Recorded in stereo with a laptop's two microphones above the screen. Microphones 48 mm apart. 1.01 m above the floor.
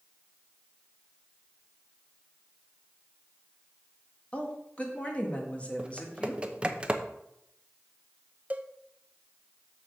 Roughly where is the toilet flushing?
No toilet flushing in this recording.